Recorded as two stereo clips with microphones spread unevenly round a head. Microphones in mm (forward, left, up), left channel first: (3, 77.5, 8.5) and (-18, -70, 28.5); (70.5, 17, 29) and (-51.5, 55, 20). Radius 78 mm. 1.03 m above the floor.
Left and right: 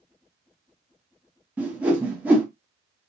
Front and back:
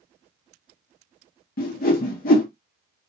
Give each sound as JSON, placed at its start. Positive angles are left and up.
{"t": 1.6, "sound": "a whoosh", "azimuth_deg": -15, "distance_m": 0.7}